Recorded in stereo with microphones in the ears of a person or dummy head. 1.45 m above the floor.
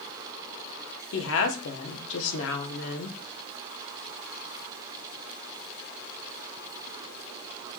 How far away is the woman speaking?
About 1.0 m.